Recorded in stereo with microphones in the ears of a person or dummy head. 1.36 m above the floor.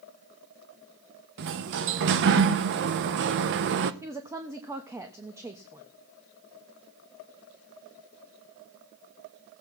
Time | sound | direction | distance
1.4 | a sliding door | 60° right (ahead or behind) | 0.9 m
4.0 | a woman speaking | 15° right (ahead or behind) | 1.2 m